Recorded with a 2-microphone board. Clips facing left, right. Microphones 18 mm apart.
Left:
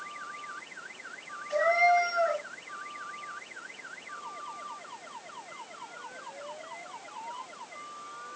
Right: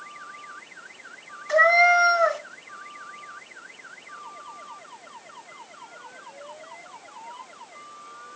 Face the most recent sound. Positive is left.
turn(degrees=-70)  # may be behind; listen again after turning